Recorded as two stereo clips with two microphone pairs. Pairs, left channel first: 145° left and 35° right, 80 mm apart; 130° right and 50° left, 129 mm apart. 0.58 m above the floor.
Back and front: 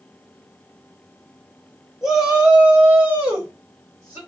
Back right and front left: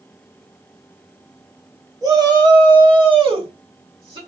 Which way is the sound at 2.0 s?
45° left.